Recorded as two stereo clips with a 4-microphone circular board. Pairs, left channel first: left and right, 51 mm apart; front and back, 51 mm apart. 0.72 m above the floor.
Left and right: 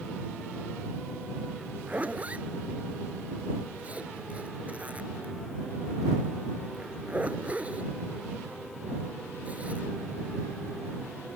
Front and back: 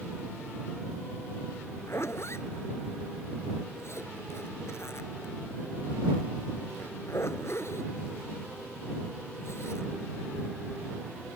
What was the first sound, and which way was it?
A zipper, 30° right.